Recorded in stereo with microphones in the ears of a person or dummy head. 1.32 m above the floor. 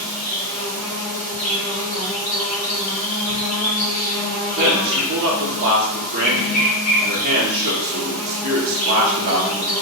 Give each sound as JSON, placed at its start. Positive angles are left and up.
{"t": 0.0, "sound": "an insect", "side_deg": 45, "distance_m": 1.7}
{"t": 4.6, "sound": "a man speaking", "side_deg": -55, "distance_m": 0.8}